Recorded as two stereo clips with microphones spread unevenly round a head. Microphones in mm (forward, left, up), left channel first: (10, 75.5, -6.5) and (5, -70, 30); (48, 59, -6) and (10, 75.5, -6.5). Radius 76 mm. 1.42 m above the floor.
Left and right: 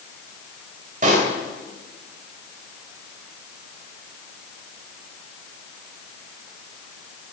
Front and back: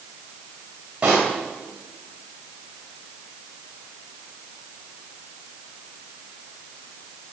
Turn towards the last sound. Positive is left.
turn(degrees=-125)